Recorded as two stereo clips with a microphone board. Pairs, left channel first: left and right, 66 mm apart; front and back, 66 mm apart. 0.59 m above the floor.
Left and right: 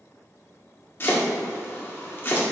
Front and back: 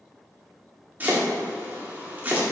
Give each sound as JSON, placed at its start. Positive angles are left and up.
{"t": 1.0, "sound": "chopping", "azimuth_deg": 130, "distance_m": 1.5}